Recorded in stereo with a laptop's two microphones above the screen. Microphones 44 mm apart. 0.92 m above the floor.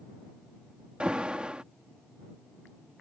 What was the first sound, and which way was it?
An alarm, 25° right (ahead or behind).